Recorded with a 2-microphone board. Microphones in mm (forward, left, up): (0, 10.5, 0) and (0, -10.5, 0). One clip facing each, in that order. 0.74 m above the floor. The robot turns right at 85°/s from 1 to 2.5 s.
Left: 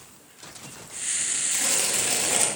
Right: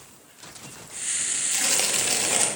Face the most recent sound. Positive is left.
turn(degrees=-15)